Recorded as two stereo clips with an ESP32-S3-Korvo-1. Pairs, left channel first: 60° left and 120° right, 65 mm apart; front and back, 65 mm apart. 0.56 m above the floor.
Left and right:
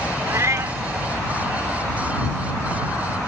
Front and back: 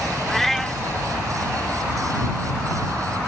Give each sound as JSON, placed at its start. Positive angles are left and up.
{"t": 0.3, "sound": "a cat meowing", "azimuth_deg": -85}